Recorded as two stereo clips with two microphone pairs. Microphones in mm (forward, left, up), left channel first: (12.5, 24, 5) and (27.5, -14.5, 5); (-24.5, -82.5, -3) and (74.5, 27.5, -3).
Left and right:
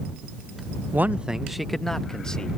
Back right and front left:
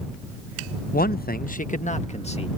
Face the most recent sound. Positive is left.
turn(degrees=180)